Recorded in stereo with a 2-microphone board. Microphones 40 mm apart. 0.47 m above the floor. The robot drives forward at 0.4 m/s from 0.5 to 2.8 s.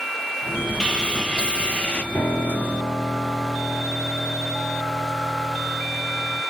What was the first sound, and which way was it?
Sawing, 20° left (ahead or behind).